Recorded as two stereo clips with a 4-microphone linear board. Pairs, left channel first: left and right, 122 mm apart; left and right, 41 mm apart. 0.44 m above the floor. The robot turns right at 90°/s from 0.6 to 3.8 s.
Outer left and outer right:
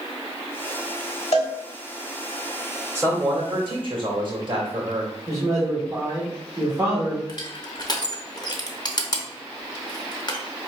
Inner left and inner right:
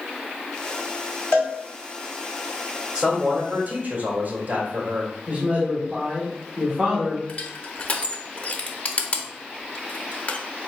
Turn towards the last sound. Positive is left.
turn(degrees=40)  # may be behind; listen again after turning